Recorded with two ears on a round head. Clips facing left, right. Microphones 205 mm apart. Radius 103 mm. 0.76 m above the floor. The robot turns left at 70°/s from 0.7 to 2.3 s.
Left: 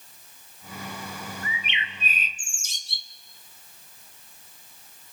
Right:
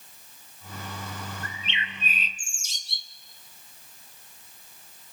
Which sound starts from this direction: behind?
A bird, at 1.4 s.